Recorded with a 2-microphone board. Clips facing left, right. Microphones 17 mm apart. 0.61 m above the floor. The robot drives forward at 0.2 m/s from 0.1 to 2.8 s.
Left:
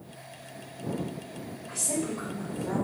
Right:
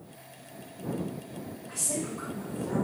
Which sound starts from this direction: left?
A woman speaking, at 1.7 s.